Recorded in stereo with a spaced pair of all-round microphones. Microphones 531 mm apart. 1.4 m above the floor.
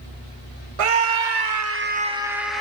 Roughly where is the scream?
Right.